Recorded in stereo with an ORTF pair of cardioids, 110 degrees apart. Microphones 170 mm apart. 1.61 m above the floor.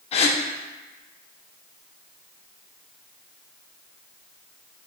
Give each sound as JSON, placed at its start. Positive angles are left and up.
{"t": 0.1, "sound": "a gasp", "azimuth_deg": 35, "distance_m": 0.5}